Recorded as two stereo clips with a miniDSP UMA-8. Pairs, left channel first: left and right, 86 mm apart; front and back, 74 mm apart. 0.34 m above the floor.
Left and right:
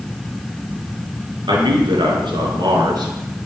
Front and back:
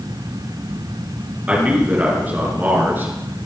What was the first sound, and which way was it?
A man speaking, 110° right.